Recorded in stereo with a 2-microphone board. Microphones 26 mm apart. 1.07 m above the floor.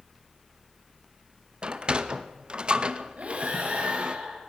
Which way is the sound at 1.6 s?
40° right (ahead or behind).